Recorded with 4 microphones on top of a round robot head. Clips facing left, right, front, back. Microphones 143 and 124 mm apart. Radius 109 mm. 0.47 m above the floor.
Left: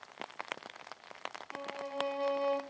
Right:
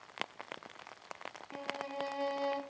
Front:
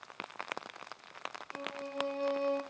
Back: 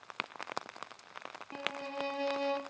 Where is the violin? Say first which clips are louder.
Left 1 dB, even; 150° right, 0.7 m.